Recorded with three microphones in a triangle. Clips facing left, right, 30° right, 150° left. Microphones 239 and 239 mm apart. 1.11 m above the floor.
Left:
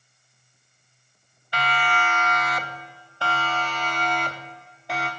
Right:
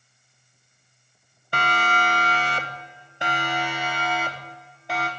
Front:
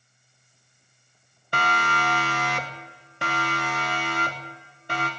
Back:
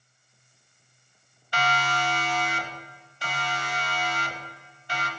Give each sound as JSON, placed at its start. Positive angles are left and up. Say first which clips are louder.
{"t": 1.5, "sound": "a siren", "louder": "right 1 dB, even", "azimuth_deg": -55, "distance_m": 2.5}